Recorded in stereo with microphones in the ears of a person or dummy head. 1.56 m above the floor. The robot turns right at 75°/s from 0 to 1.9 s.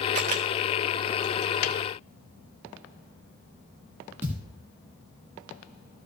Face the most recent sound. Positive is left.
turn(degrees=-15)  # may be behind; listen again after turning